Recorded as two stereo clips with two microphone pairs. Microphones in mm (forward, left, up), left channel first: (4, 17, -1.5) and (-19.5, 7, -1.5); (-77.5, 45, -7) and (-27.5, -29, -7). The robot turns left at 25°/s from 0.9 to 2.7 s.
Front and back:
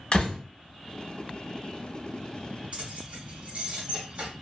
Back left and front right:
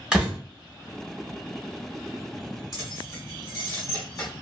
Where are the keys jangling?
175° left, 1.5 m.